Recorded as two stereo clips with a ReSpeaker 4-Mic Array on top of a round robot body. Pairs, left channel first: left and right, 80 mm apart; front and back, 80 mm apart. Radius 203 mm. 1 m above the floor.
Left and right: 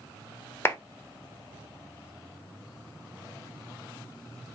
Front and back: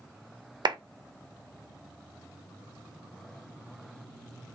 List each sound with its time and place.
0.7 s a clap: 155° left, 0.9 m